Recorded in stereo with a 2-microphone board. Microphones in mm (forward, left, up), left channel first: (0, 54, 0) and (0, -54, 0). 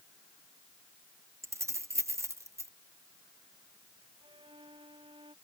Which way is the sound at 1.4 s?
25° right (ahead or behind).